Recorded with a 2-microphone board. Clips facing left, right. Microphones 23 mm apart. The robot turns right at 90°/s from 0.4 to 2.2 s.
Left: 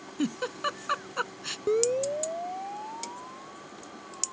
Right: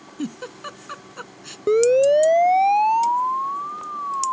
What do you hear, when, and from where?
0.2 s a giggle: 10° left (ahead or behind); by 1.6 s 20° left (ahead or behind)
1.7 s a siren: 25° right (ahead or behind); by 4.3 s 65° right (ahead or behind)